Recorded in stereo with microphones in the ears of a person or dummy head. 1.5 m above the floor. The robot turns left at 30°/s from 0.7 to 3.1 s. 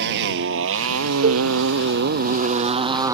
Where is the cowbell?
45° right (ahead or behind); by 1.5 s 50° right (ahead or behind).